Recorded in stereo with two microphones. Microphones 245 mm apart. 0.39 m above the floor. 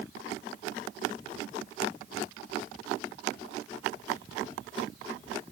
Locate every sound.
Only background noise.